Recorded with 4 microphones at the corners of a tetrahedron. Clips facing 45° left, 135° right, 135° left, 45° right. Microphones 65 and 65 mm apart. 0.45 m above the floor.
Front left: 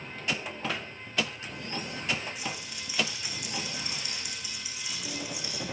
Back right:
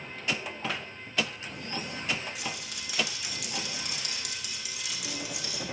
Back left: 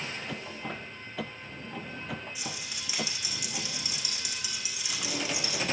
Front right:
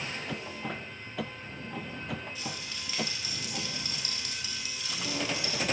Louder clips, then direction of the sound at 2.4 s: Even, even; 150° right.